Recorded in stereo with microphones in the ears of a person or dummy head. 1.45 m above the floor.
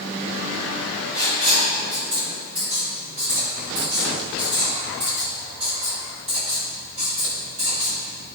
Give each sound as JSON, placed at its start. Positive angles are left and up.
{"t": 1.1, "sound": "writing", "side_deg": -35, "distance_m": 5.0}